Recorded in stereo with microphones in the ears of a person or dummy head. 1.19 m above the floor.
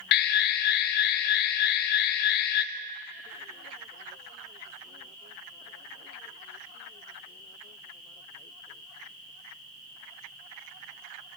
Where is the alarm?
55° left (ahead or behind), 0.6 m.